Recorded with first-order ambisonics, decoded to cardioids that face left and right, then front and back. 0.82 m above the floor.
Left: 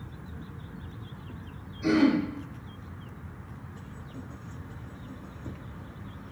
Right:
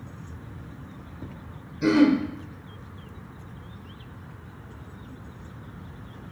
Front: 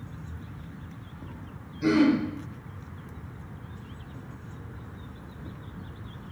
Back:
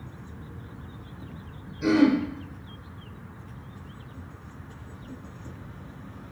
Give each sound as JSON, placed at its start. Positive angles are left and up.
{"t": 1.8, "sound": "throat clearing", "azimuth_deg": -100, "distance_m": 0.7}